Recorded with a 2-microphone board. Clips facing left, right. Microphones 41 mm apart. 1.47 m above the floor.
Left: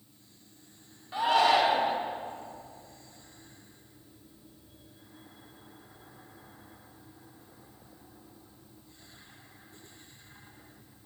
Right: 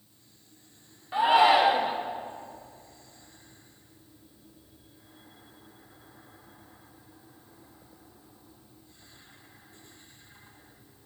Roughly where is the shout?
Centre.